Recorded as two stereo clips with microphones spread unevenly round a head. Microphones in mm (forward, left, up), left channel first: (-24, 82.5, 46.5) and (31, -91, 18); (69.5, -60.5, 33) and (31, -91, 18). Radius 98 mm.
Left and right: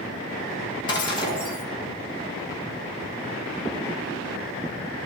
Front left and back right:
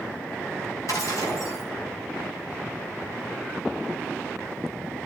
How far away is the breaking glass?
About 5 m.